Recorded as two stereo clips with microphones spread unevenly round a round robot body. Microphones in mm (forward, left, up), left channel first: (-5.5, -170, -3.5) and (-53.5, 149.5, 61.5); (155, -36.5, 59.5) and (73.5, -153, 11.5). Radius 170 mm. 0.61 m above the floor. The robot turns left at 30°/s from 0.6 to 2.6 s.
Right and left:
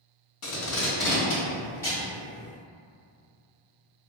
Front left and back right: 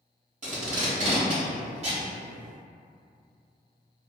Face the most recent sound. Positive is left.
turn(degrees=180)